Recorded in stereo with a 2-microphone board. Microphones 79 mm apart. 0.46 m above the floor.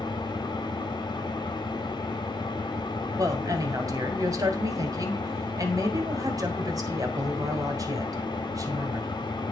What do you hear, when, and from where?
0.0 s an engine running: 70° left (ahead or behind), 1.5 m
3.2 s a woman speaking: 50° right (ahead or behind), 2.0 m